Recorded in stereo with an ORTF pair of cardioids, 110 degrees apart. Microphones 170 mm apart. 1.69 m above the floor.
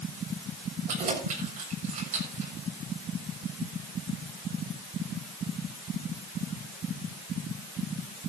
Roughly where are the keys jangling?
Ahead right.